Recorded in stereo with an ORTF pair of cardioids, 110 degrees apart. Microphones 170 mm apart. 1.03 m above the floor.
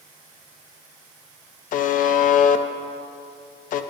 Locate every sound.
1.7 s a buzzer: 55° left, 0.5 m